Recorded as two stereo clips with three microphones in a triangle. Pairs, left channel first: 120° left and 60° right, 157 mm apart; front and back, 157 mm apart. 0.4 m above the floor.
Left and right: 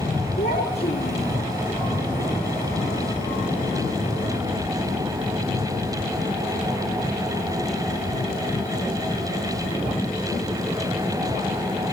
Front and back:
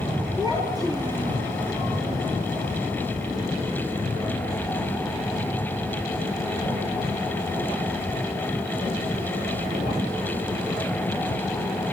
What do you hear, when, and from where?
0.4 s a child speaking: 115° left, 6 m